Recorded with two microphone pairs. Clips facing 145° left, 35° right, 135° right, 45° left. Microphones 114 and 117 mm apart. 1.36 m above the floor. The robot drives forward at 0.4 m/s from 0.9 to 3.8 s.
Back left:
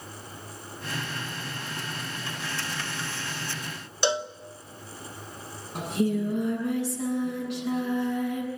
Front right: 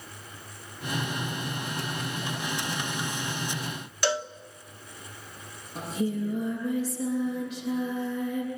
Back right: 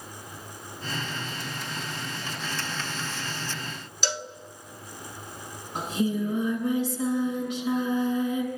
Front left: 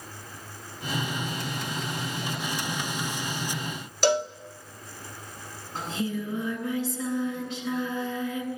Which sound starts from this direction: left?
A cowbell, at 4.0 s.